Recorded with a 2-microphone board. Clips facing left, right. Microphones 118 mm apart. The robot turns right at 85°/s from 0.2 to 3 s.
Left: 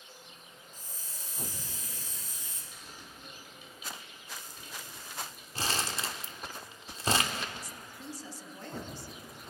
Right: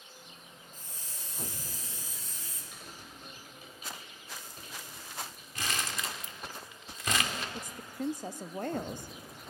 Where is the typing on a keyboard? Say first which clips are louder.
Right 1 dB; 70° right (ahead or behind), 3.5 m; by 5.5 s 45° right (ahead or behind), 3.5 m.